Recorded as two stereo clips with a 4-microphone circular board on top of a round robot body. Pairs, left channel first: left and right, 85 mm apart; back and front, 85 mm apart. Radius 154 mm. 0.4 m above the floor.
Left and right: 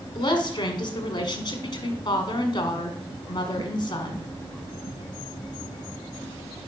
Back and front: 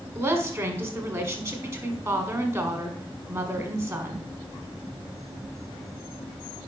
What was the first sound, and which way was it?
A woman speaking, 50° left.